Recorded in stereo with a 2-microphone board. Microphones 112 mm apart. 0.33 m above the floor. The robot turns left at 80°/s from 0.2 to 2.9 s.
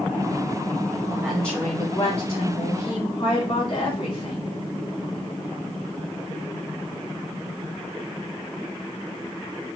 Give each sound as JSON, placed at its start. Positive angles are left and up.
{"t": 1.1, "sound": "a woman speaking", "azimuth_deg": -160, "distance_m": 3.0}